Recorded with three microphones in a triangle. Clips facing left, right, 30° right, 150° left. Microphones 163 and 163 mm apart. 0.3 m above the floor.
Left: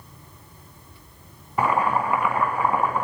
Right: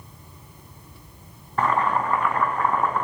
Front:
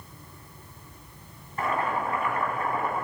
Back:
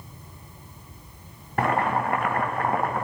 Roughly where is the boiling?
Behind.